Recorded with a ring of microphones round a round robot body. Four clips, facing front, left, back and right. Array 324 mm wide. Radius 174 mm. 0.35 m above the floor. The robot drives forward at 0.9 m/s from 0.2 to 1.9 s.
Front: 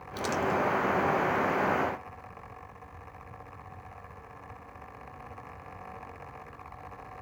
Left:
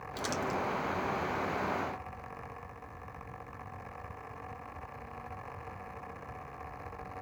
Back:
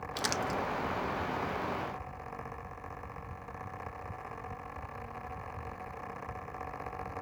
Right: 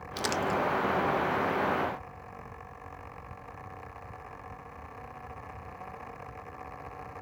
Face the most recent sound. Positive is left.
turn(degrees=-170)